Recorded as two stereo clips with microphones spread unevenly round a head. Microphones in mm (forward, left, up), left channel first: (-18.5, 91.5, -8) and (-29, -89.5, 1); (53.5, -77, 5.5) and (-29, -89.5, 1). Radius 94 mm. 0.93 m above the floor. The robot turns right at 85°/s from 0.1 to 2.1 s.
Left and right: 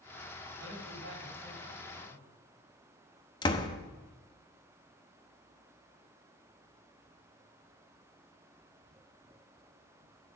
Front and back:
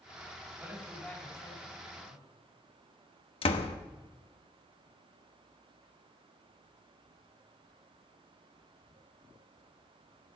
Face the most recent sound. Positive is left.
turn(degrees=20)